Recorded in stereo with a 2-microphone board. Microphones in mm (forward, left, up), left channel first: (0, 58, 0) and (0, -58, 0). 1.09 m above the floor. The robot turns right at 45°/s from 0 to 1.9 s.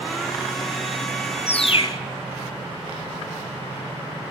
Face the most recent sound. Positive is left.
turn(degrees=45)  # may be behind; listen again after turning